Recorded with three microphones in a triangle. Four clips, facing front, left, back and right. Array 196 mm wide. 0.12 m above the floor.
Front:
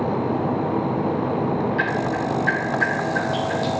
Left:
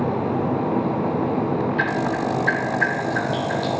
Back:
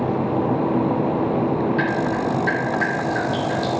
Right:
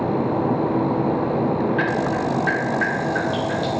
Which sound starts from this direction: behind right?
Dripping, at 1.8 s.